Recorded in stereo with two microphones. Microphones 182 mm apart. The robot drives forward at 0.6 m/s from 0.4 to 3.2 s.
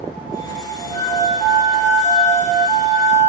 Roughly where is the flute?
Left.